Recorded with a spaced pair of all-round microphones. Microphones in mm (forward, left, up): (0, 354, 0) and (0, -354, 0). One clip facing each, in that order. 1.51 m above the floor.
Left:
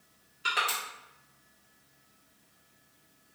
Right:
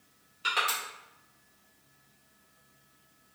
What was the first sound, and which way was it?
Crushing, 35° right (ahead or behind).